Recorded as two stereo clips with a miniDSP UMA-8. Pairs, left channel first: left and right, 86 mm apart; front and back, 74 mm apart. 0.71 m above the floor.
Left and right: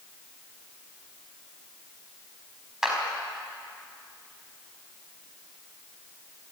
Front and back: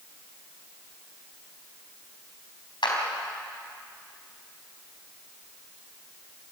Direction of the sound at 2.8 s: 5° right.